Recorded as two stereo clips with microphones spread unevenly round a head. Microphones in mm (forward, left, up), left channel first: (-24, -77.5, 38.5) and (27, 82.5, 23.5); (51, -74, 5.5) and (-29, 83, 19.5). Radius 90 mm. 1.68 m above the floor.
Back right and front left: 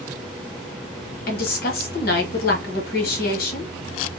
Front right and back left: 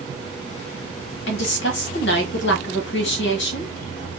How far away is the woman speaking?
About 1.1 m.